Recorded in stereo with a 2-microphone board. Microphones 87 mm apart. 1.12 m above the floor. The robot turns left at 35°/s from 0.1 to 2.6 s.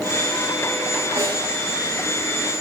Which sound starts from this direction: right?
A snare drum, at 1.2 s.